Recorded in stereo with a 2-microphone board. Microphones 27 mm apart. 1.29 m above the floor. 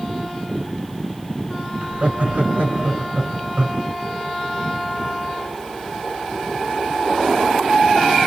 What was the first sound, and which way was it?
Laughter, 70° right (ahead or behind).